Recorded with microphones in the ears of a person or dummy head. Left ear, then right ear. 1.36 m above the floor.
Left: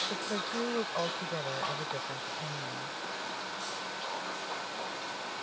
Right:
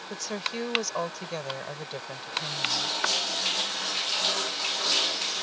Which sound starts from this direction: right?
A woman speaking, at 0.1 s.